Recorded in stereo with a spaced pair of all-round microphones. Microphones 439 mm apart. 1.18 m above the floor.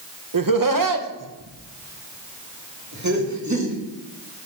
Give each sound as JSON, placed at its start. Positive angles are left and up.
{"t": 0.3, "sound": "laughter", "side_deg": -50, "distance_m": 1.0}